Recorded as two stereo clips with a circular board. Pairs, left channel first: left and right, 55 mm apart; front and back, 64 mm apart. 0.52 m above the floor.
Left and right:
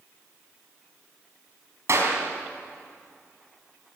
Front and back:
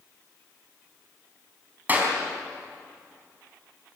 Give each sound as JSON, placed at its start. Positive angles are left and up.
{"t": 1.9, "sound": "a clap", "azimuth_deg": -115, "distance_m": 4.5}